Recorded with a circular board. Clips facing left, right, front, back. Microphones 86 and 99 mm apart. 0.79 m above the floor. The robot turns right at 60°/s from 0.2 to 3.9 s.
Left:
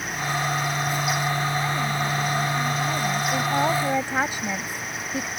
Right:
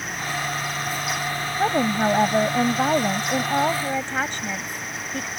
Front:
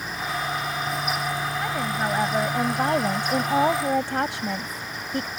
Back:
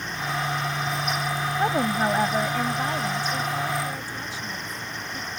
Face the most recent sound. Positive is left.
turn(degrees=10)